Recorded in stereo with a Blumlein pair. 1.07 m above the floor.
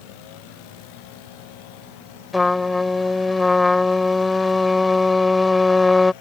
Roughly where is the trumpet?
Ahead.